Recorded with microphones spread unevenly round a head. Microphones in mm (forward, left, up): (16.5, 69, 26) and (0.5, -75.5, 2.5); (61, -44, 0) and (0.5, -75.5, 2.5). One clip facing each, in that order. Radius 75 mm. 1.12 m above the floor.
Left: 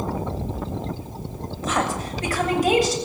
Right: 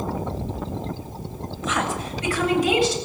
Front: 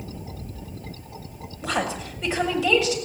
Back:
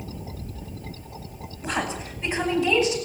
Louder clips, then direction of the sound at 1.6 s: Left 2 dB, front 2 dB; 25° left.